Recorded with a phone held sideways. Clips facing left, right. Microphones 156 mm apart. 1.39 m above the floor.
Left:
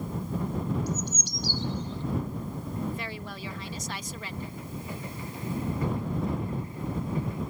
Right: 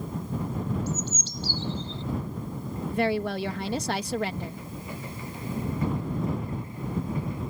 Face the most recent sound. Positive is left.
turn(degrees=-70)  # may be behind; listen again after turning